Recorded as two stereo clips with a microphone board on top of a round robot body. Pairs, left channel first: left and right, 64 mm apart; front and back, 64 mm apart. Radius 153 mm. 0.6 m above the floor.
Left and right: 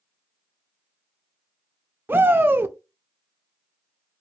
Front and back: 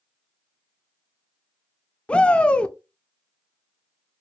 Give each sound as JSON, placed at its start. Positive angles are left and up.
{"t": 2.1, "sound": "a shout", "azimuth_deg": -60, "distance_m": 0.6}